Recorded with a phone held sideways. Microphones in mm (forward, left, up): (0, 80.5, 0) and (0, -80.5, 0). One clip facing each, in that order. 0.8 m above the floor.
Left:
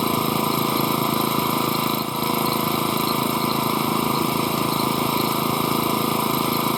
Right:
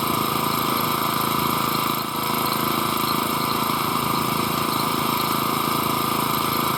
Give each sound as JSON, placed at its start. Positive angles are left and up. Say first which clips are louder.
{"t": 0.0, "sound": "an engine running", "louder": "left 3 dB", "side_deg": 25}